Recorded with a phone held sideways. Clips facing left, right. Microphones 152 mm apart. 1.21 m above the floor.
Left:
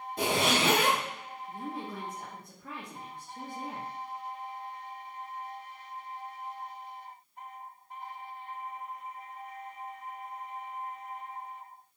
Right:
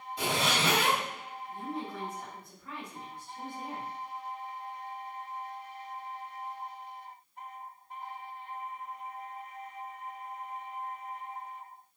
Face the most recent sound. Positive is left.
turn(degrees=55)  # may be behind; listen again after turning